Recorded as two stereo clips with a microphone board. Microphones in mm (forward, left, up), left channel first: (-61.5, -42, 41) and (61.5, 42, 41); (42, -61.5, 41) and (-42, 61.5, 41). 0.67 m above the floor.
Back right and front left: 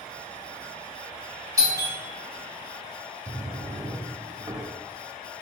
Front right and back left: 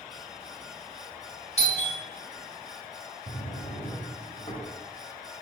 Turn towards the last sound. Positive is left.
turn(degrees=-30)